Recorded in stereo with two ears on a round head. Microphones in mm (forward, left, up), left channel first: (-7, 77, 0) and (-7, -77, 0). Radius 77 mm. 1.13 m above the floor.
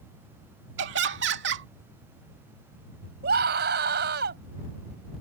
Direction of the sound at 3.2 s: 65° right (ahead or behind).